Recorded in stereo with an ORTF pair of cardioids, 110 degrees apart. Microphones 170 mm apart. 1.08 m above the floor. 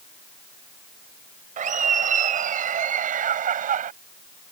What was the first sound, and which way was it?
Laughter, 50° right.